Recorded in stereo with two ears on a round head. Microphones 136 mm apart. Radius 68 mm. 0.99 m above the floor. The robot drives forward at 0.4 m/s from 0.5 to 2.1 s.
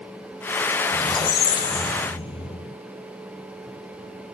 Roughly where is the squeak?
Left.